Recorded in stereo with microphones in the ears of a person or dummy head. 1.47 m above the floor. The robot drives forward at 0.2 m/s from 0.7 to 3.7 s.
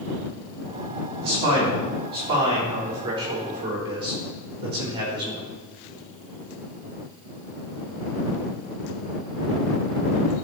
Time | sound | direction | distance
1.2 | a man speaking | 30° right (ahead or behind) | 3.5 m